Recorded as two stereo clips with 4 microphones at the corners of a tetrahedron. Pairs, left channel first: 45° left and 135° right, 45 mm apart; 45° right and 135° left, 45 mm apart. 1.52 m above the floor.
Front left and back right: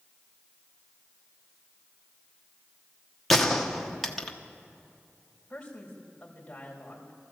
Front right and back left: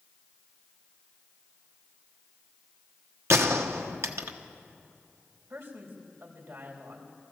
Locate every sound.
3.3 s a gunshot: 130° left, 1.2 m
5.5 s a man speaking: 115° left, 3.5 m